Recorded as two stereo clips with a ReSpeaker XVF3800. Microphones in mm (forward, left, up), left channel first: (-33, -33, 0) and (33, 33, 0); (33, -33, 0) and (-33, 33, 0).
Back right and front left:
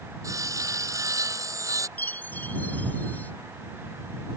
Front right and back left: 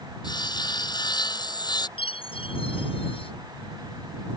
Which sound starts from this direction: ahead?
Sawing, at 0.2 s.